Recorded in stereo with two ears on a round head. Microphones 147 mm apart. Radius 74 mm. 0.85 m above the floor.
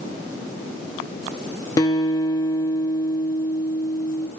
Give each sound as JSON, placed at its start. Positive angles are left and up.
{"t": 1.8, "sound": "a guitar", "side_deg": 20, "distance_m": 0.7}